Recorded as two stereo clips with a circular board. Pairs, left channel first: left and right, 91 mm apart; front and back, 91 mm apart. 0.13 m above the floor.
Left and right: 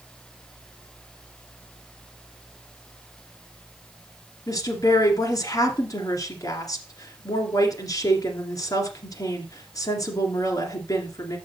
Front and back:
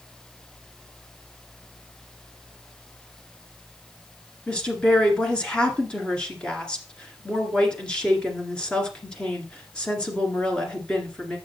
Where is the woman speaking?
75° left, 1.8 m.